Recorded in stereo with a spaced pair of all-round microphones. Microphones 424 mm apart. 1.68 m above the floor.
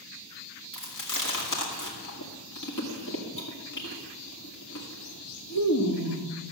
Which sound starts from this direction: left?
Chewing, at 0.7 s.